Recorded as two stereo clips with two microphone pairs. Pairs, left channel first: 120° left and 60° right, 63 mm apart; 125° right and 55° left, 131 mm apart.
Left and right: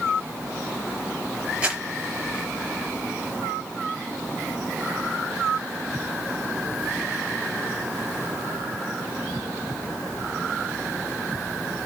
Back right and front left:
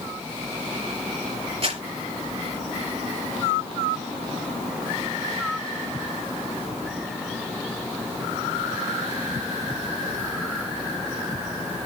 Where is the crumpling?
10° left, 4.5 m.